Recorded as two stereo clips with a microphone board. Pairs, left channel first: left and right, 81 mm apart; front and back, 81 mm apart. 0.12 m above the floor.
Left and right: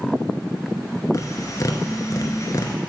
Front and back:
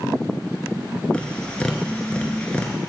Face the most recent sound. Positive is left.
turn(degrees=70)